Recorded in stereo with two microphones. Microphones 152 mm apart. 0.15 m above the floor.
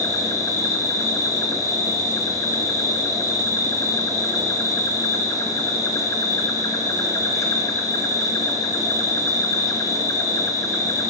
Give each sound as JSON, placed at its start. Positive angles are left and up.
{"t": 0.0, "sound": "an insect", "side_deg": 20, "distance_m": 0.9}